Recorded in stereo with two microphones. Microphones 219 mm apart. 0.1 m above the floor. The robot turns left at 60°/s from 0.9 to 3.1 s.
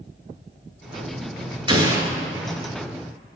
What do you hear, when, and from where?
1.7 s an explosion: 20° right (ahead or behind), 1.2 m; by 2.0 s 10° right (ahead or behind), 1.2 m